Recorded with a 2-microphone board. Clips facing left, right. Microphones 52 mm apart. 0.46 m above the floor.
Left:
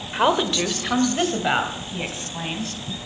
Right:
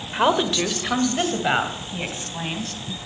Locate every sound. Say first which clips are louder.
0.1 s a woman speaking: even; centre (ahead or behind), 1.4 m; by 2.8 s 5° right (ahead or behind), 3 m